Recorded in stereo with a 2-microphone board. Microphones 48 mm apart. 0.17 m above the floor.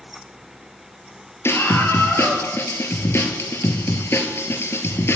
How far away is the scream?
About 4 m.